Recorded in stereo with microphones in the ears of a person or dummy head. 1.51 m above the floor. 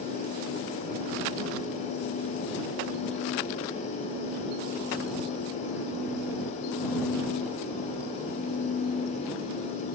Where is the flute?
No flute in this recording.